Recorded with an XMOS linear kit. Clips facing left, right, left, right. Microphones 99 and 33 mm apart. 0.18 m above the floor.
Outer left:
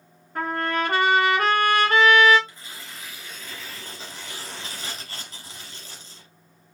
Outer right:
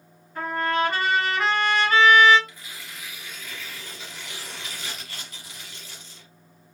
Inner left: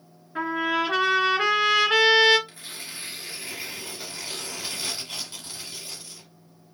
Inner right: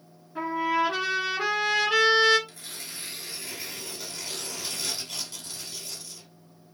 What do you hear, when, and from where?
0.3 s a trumpet: 55° left (ahead or behind), 2.5 m
2.5 s tearing paper: 30° left (ahead or behind), 1.4 m